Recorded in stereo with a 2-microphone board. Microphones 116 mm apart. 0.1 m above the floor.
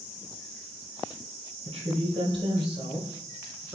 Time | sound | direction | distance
1.6 | a woman speaking | 55° right (ahead or behind) | 2 m